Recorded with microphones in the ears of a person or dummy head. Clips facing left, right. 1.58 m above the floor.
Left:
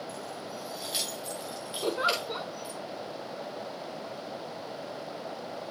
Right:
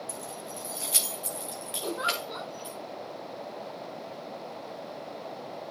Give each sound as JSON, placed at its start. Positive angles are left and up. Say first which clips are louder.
{"t": 0.1, "sound": "keys jangling", "louder": "left 1 dB", "side_deg": -55, "distance_m": 2.5}
{"t": 1.8, "sound": "a giggle", "louder": "left 4 dB", "side_deg": 45, "distance_m": 3.0}